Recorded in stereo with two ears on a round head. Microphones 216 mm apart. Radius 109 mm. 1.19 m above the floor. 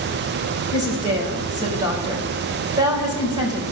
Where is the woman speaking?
15° right (ahead or behind), 5 m.